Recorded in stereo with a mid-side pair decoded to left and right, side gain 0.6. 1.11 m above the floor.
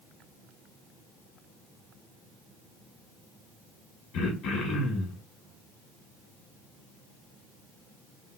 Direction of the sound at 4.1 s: 65° left.